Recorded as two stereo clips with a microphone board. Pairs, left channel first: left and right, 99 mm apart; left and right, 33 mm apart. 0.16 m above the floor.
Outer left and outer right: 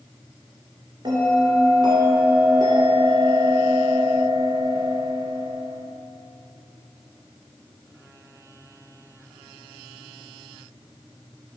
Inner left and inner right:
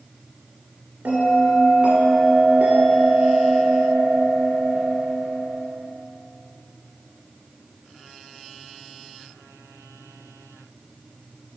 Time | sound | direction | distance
1.1 | a bell | 45° right (ahead or behind) | 1.7 m